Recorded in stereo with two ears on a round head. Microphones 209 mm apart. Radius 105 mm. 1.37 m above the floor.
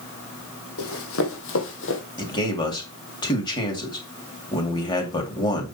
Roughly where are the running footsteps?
Left.